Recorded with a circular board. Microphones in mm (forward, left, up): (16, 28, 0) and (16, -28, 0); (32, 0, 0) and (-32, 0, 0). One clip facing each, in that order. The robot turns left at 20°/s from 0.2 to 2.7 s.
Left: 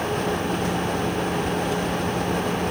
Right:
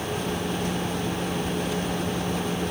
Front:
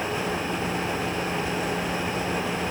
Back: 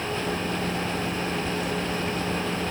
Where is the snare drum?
I don't hear a snare drum.